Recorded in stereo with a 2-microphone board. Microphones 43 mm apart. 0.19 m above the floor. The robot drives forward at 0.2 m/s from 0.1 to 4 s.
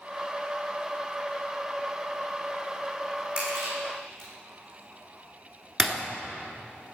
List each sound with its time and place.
3.4 s crushing: 25° right (ahead or behind), 5.5 m
5.8 s breaking glass: 5° right (ahead or behind), 1.4 m